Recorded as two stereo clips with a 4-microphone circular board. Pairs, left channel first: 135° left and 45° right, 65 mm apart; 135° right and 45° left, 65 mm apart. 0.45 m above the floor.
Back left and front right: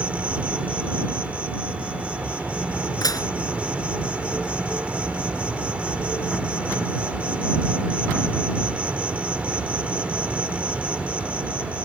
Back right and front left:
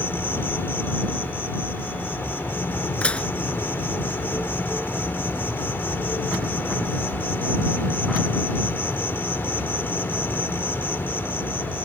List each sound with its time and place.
0.0 s an insect: 100° right
3.0 s dishes clattering: 155° left